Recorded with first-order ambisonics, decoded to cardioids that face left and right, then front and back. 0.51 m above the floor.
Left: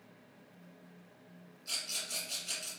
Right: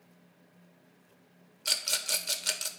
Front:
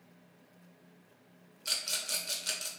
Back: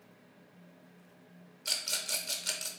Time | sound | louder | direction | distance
1.6 | a rattle | right 8 dB, even | 95° right | 0.6 m